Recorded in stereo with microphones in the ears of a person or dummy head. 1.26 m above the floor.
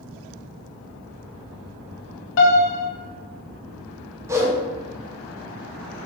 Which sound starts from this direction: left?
A piano, at 2.4 s.